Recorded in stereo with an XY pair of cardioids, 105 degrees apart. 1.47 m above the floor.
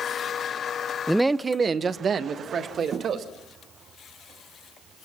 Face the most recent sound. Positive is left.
turn(degrees=-60)